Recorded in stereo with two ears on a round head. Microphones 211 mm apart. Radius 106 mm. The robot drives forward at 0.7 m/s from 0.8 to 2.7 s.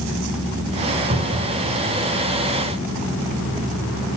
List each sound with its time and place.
1.1 s a cupboard door: 40° right (ahead or behind), 5.5 m